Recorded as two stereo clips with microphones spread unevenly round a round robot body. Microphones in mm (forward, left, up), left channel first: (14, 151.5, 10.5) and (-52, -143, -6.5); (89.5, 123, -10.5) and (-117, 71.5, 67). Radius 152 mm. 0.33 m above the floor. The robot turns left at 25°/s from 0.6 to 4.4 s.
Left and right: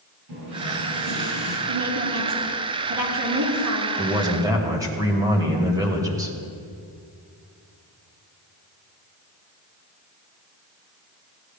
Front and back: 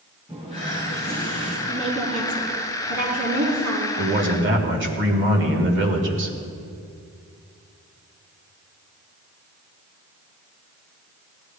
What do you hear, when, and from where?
0.3 s a running tap: 70° right, 5 m; by 1.6 s 95° right, 5 m
1.7 s a woman speaking: 85° right, 4.5 m; by 3.9 s 140° right, 4.5 m
4.0 s a man speaking: 160° right, 1.8 m; by 6.4 s 170° right, 1.8 m